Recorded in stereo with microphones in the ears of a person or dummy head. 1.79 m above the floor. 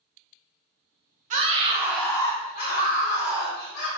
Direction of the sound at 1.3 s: 40° right (ahead or behind).